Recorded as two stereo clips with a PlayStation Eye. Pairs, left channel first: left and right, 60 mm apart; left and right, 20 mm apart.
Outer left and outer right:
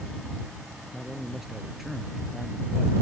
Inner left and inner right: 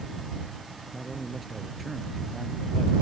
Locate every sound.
0.9 s a man speaking: 5° right (ahead or behind)